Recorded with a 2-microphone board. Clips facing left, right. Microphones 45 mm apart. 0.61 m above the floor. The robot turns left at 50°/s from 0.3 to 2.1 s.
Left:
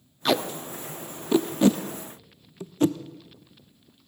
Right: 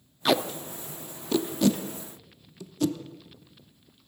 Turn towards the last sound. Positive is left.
turn(degrees=35)  # may be behind; listen again after turning